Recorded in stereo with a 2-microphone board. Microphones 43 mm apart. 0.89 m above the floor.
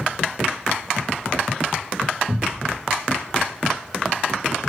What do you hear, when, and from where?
2.3 s a cupboard door: 55° right (ahead or behind), 0.8 m